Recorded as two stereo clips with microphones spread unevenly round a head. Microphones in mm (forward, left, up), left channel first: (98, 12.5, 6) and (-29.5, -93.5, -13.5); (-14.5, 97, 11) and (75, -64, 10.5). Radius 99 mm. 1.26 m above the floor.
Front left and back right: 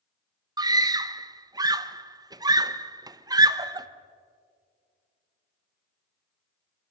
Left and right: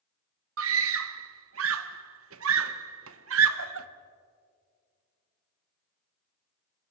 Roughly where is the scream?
Right.